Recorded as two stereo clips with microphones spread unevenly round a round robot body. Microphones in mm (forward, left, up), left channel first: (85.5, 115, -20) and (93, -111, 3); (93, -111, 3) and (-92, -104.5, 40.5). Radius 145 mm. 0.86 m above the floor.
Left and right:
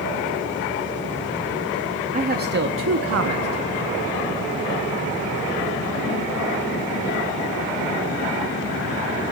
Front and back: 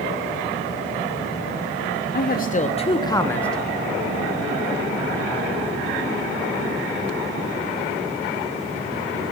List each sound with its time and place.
2.1 s a man speaking: 30° right, 1.2 m; by 3.8 s 90° right, 1.3 m